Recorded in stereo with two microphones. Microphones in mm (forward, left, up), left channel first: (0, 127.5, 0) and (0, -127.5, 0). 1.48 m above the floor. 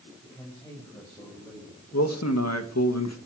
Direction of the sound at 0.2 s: 15° left (ahead or behind).